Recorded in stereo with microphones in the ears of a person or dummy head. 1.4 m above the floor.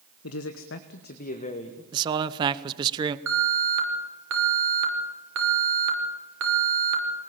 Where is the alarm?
70° right (ahead or behind), 5.5 m.